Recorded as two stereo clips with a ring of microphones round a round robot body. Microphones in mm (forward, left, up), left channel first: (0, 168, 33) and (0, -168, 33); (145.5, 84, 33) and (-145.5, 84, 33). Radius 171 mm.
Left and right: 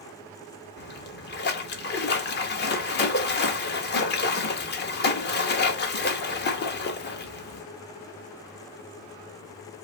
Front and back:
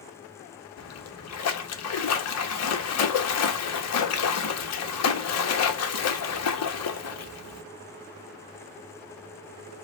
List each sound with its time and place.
0.8 s a splash: 30° left, 1.0 m